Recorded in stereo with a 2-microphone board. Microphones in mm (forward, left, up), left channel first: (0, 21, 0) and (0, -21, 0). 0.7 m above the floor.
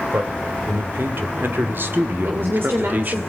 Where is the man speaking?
70° right (ahead or behind), 3 m; by 3.2 s 40° right (ahead or behind), 1.4 m.